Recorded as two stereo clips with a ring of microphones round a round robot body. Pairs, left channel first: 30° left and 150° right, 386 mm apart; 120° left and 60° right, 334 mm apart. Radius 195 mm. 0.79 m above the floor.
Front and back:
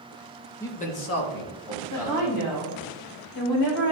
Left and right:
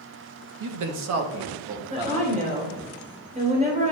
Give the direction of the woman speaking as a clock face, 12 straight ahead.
12 o'clock.